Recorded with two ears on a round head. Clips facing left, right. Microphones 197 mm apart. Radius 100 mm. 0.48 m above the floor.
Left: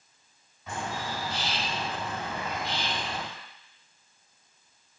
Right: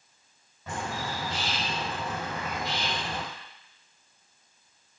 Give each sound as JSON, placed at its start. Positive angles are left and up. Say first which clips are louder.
{"t": 0.7, "sound": "a bird", "louder": "even", "side_deg": -45, "distance_m": 2.5}